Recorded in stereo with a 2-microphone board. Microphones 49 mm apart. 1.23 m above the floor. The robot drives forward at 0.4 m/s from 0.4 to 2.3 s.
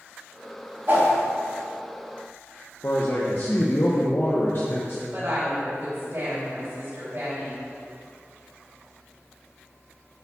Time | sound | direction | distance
0.9 | a whoosh | 50° right (ahead or behind) | 3.5 m
2.8 | a man speaking | 50° left (ahead or behind) | 1.1 m
5.1 | a woman speaking | 50° right (ahead or behind) | 3.5 m